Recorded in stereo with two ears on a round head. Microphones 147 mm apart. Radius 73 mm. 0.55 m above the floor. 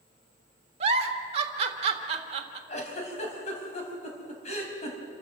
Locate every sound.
0.8 s a giggle: 40° right (ahead or behind), 1.5 m
2.7 s a giggle: 45° left (ahead or behind), 4 m